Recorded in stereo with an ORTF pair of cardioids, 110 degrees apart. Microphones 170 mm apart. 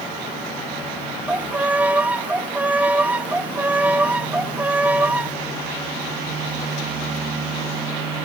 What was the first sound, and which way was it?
A violin, 10° right.